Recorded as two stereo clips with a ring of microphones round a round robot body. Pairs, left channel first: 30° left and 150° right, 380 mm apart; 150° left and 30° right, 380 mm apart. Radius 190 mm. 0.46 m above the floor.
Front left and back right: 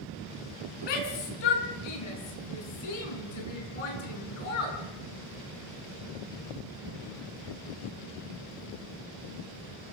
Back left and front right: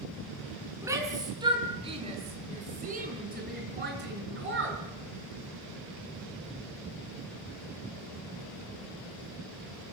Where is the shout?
55° left, 5 m; by 4.8 s 30° left, 6 m.